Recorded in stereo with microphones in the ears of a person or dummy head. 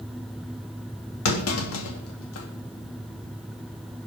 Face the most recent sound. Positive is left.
turn(degrees=80)